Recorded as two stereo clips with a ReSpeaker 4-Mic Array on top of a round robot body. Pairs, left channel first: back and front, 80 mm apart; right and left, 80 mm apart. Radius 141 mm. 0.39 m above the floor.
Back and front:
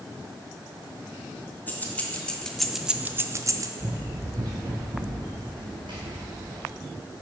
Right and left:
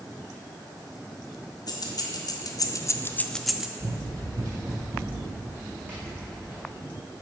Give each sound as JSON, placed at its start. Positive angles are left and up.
{"t": 1.7, "sound": "keys jangling", "azimuth_deg": -115, "distance_m": 1.0}
{"t": 3.8, "sound": "running footsteps", "azimuth_deg": 70, "distance_m": 0.6}